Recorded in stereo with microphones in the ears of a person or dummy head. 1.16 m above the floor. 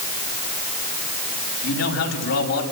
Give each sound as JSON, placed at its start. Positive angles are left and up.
{"t": 1.6, "sound": "a man speaking", "side_deg": 80, "distance_m": 7.0}